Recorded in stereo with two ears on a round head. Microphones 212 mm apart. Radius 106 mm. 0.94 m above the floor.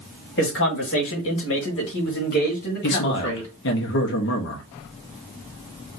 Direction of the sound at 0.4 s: 50° left (ahead or behind).